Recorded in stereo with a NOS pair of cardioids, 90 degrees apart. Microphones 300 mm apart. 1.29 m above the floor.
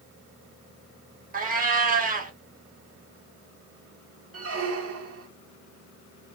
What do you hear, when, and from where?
1.3 s a cat meowing: 30° right, 1.6 m
4.3 s a squeak: 50° right, 1.8 m